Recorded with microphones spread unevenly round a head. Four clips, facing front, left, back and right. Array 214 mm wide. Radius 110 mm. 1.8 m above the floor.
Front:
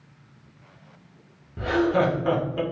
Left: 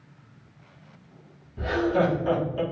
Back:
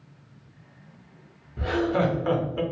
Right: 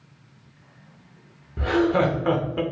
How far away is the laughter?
About 0.8 m.